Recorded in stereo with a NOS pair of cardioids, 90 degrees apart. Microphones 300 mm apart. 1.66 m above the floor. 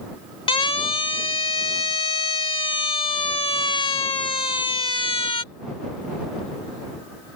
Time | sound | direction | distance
0.5 | a siren | 15° left | ?